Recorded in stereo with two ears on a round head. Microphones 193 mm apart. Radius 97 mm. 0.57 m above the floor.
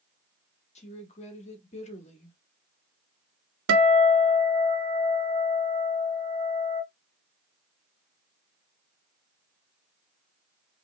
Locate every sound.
0.8 s a woman speaking: 30° left (ahead or behind), 1.2 m
3.7 s a guitar: 65° right (ahead or behind), 0.7 m